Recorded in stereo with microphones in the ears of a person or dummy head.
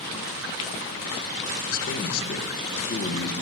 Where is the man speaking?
50° left (ahead or behind), 1.0 m.